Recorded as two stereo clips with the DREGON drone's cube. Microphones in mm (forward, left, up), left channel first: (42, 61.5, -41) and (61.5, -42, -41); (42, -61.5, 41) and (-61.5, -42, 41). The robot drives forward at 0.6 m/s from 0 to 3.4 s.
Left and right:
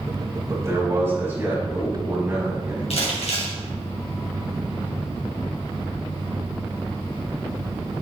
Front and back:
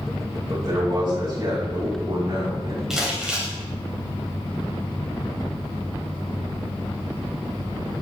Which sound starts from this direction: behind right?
A man speaking, at 0.5 s.